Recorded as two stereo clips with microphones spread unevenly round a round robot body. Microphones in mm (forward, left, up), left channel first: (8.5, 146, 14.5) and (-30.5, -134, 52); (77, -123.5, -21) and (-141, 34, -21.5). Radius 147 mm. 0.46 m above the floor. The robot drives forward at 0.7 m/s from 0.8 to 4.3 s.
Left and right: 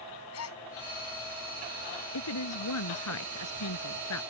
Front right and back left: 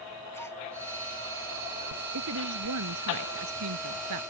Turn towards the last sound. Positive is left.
turn(degrees=115)